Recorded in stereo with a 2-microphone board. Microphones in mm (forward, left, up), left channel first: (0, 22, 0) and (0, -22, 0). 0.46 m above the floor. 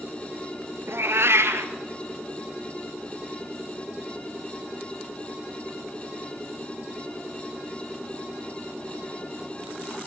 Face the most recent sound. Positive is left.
turn(degrees=-70)  # may be behind; listen again after turning